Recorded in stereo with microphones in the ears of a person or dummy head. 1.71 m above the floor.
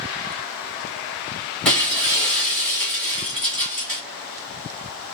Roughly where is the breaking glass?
Centre.